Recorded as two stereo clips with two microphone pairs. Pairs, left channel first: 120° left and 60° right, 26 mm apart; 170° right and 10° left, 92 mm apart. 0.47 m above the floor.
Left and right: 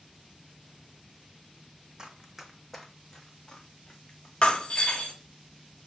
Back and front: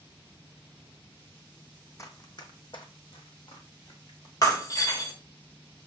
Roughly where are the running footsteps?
Behind right.